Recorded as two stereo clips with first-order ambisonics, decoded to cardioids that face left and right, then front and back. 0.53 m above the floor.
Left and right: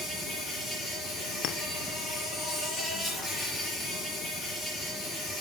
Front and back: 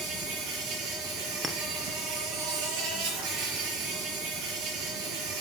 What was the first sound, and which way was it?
An insect, 165° left.